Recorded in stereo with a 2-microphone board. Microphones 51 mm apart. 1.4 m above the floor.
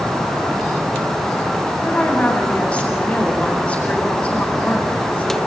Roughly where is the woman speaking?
Left.